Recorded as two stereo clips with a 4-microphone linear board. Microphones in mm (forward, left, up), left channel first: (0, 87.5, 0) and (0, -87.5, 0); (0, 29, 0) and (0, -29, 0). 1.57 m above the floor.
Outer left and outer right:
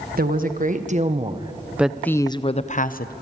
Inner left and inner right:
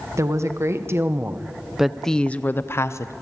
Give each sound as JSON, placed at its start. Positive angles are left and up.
{"t": 0.2, "sound": "a woman speaking", "side_deg": -55, "distance_m": 1.6}